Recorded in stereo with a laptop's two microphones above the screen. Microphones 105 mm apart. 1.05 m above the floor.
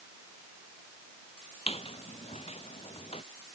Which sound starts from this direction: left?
A squeak, at 1.7 s.